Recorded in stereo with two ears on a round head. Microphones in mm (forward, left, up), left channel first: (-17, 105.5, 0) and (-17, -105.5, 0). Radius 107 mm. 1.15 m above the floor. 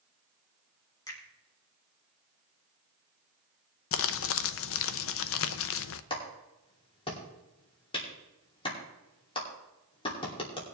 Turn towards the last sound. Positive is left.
turn(degrees=25)  # may be behind; listen again after turning